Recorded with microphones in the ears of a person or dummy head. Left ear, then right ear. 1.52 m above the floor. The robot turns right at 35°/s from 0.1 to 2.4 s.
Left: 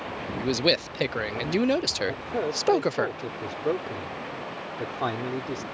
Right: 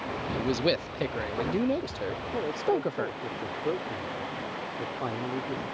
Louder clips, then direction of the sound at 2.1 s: Left 3 dB; 60° left (ahead or behind).